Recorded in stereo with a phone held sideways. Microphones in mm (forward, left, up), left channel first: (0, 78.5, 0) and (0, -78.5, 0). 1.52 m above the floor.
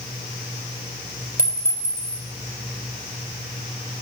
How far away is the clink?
About 3.5 m.